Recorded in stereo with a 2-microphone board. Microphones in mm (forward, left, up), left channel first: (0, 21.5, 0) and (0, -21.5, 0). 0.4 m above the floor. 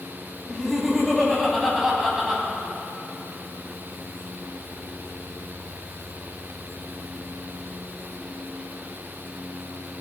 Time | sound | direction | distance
0.5 | laughter | 5° left (ahead or behind) | 3 m